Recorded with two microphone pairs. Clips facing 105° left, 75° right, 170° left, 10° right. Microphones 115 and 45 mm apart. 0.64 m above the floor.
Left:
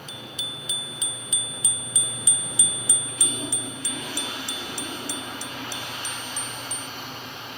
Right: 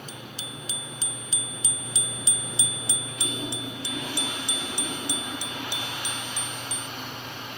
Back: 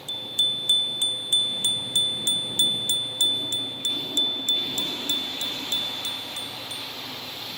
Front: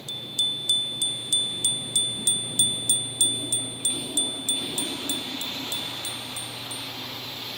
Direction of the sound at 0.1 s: 125° right.